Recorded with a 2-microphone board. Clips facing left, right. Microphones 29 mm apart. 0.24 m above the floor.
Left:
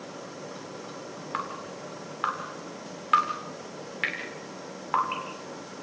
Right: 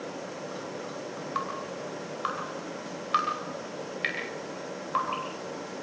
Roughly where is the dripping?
Left.